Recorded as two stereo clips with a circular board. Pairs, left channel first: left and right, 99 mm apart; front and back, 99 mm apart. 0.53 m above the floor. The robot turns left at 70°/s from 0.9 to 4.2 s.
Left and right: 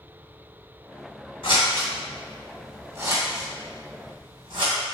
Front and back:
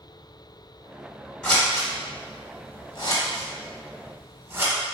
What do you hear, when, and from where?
1.4 s scissors: 80° left, 1.2 m; by 4.7 s 110° right, 1.2 m